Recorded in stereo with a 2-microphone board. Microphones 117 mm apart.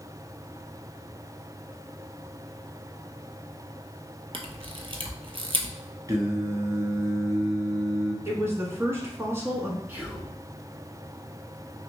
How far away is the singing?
About 0.7 m.